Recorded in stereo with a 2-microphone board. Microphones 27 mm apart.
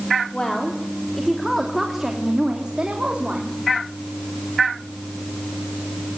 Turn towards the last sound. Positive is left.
turn(degrees=-45)  # may be behind; listen again after turning